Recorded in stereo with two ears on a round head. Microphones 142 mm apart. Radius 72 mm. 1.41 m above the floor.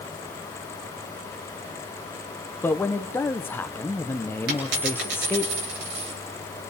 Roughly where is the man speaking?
Centre.